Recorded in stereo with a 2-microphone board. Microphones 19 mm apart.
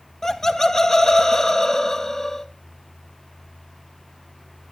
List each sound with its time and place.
0.2 s laughter: 35° left (ahead or behind), 1.6 m